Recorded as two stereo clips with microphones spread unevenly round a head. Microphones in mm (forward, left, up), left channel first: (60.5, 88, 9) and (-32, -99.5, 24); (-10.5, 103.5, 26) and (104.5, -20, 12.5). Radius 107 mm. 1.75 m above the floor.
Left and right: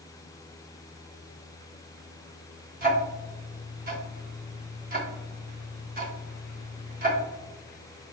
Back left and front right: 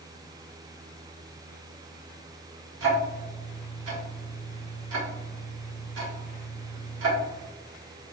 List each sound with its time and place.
2.8 s ticking: 65° right, 1.1 m